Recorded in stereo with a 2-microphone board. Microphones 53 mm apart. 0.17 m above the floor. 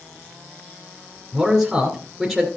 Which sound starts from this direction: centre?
A man speaking, at 1.3 s.